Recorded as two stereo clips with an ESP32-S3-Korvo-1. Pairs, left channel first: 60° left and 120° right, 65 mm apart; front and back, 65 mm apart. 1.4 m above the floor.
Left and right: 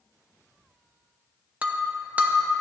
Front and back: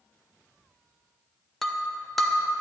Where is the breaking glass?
85° right, 0.7 m.